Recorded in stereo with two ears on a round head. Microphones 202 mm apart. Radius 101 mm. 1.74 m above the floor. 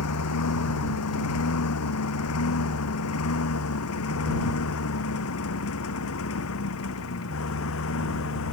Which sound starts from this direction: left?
A lawn mower, at 0.0 s.